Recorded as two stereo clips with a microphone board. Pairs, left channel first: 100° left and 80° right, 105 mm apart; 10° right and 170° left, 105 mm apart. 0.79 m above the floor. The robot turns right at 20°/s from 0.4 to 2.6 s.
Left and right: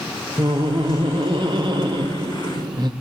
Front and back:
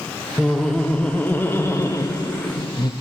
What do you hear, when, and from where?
0.4 s laughter: 100° right, 0.5 m; by 2.9 s 55° right, 0.5 m